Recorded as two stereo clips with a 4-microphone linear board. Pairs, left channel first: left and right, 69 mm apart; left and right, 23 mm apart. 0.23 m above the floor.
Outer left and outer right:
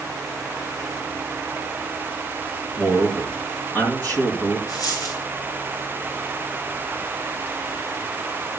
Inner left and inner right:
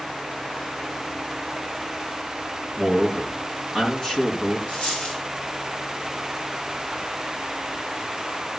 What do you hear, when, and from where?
2.8 s a man speaking: 30° left (ahead or behind), 4.5 m
4.7 s a dropped coin: 60° left (ahead or behind), 6 m